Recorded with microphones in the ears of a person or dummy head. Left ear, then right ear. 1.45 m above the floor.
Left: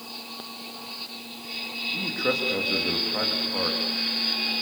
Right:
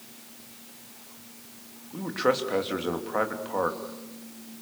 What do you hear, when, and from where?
1.9 s a man speaking: 30° right (ahead or behind), 3 m